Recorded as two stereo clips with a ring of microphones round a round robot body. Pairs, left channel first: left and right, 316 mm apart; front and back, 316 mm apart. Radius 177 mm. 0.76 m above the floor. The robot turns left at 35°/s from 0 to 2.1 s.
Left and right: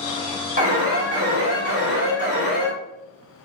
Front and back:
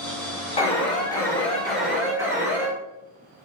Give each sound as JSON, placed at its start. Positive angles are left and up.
{"t": 0.6, "sound": "an alarm", "azimuth_deg": -50, "distance_m": 1.7}